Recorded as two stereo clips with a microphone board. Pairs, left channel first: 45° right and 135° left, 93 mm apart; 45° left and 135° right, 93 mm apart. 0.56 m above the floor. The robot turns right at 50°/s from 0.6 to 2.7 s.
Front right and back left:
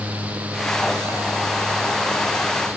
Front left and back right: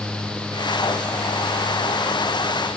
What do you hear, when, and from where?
Only background noise.